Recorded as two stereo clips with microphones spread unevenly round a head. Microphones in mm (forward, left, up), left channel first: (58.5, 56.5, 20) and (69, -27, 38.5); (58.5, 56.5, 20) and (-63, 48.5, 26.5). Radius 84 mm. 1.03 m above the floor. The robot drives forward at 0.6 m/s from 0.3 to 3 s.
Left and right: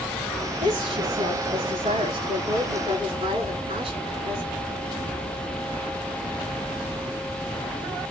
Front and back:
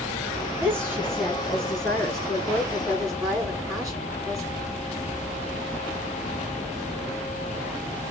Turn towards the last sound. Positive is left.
turn(degrees=-105)